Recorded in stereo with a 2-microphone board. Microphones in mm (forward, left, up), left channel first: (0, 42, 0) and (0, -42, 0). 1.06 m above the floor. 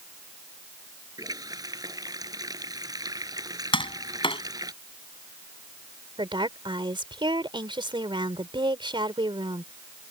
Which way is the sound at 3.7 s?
85° left.